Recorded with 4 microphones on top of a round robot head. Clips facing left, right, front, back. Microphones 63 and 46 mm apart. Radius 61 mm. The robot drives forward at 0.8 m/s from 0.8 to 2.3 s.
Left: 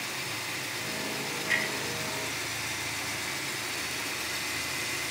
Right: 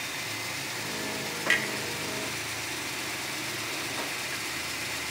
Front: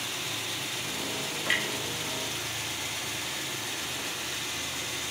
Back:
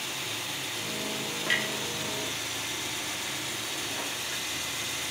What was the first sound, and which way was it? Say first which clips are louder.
A clunk: right 3 dB, even; 80° right.